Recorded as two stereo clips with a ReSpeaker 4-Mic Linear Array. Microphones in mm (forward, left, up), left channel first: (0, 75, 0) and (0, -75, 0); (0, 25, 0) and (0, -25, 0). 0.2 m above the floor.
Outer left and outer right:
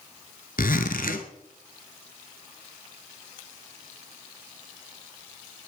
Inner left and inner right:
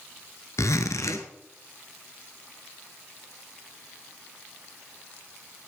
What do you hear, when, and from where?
0.6 s a zipper: 70° left (ahead or behind), 1.2 m